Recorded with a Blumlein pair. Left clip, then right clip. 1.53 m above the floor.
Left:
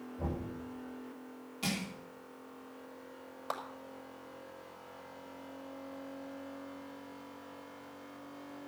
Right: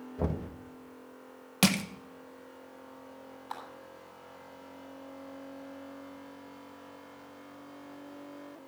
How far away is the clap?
About 5 m.